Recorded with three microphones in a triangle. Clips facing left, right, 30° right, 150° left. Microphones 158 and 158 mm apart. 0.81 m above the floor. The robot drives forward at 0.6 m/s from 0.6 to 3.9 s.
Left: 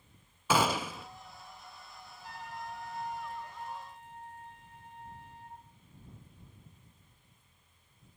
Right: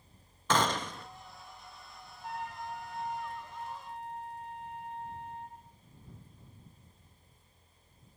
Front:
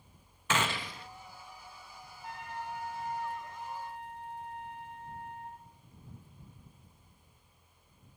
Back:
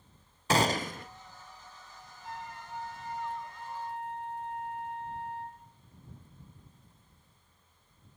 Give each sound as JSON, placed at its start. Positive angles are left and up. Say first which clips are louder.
{"t": 0.5, "sound": "a gunshot", "louder": "left 1 dB, back 6 dB", "azimuth_deg": 165, "distance_m": 0.6}
{"t": 2.2, "sound": "a trumpet", "louder": "right 4 dB, front 2 dB", "azimuth_deg": -60, "distance_m": 9.0}